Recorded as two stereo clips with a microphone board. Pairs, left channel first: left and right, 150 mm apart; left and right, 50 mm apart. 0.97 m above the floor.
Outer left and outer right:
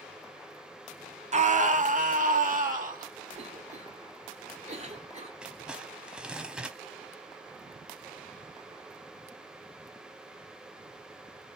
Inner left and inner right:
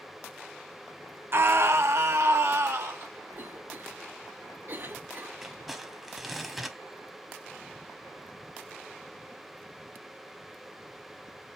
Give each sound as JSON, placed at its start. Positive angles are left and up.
{"t": 1.3, "sound": "a scream", "side_deg": -50, "distance_m": 0.6}
{"t": 3.3, "sound": "a cough", "side_deg": -50, "distance_m": 1.1}
{"t": 5.4, "sound": "crumpling", "side_deg": -5, "distance_m": 0.7}